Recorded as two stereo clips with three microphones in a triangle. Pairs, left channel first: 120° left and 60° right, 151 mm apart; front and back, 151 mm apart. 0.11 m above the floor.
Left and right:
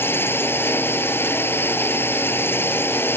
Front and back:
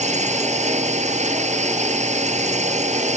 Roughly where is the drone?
Behind.